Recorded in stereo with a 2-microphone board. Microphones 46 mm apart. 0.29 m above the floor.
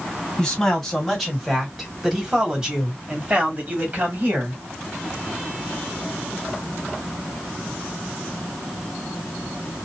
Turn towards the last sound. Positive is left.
turn(degrees=-40)  # may be behind; listen again after turning